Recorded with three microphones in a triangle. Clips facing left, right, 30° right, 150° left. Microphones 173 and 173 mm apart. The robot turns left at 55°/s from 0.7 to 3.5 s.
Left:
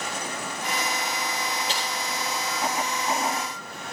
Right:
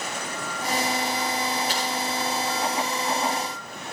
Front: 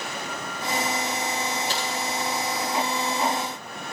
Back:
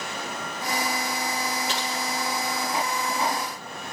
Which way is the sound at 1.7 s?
150° left.